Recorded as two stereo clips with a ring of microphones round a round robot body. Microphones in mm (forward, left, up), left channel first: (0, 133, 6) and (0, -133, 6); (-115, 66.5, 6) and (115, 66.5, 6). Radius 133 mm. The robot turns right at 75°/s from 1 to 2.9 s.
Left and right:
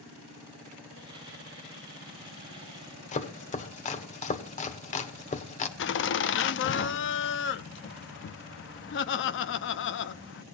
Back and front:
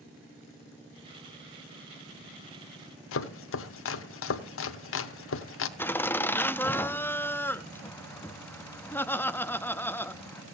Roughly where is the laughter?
Left.